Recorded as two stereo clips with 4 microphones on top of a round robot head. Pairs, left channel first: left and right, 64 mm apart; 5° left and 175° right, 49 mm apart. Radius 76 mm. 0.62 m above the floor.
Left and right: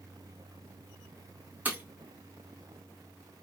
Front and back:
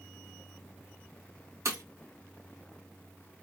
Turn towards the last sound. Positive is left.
turn(degrees=-155)